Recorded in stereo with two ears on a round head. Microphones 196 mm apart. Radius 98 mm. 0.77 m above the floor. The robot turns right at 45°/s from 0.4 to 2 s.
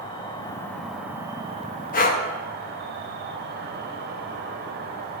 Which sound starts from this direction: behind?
An insect, at 0.0 s.